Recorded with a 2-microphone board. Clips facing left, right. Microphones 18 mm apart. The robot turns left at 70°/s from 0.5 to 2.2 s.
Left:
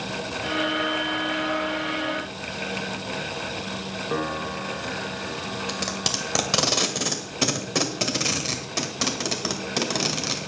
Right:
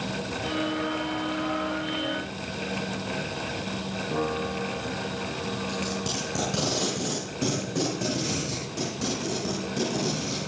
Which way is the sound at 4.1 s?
65° left (ahead or behind).